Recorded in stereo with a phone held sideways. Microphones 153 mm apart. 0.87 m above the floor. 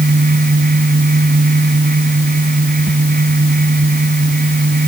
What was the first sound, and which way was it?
A fan, 80° right.